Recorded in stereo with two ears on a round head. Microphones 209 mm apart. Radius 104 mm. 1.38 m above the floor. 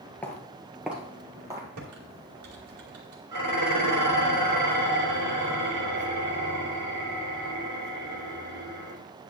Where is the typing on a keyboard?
70° right (ahead or behind), 2.5 m.